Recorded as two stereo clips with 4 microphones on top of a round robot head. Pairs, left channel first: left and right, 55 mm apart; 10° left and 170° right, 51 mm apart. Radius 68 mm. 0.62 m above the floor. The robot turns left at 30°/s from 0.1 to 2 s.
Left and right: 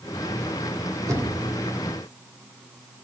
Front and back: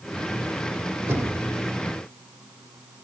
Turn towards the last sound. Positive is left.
turn(degrees=-135)